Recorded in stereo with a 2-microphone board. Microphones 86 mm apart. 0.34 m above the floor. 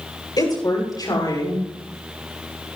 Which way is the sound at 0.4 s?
50° left (ahead or behind).